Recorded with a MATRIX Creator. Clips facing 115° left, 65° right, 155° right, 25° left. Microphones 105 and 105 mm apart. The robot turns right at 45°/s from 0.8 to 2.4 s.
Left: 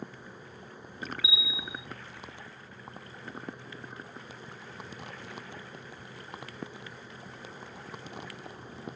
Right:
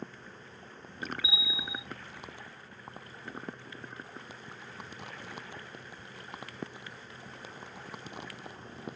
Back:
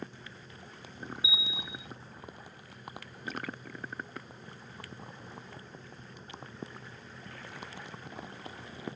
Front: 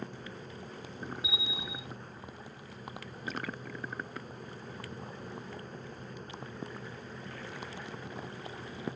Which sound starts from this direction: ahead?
A bell, at 1.2 s.